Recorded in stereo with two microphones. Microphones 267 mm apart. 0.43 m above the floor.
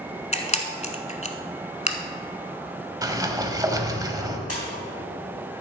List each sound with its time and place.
0.3 s a camera shutter: 25° left (ahead or behind), 0.9 m
3.0 s a sliding door: 15° right (ahead or behind), 0.9 m
4.5 s a splash: 70° left (ahead or behind), 3.5 m